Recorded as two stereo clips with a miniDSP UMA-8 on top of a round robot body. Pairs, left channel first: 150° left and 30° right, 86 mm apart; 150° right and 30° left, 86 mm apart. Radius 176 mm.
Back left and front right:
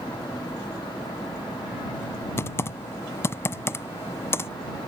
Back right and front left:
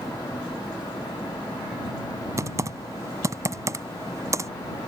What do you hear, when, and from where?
2.4 s typing on a keyboard: 85° left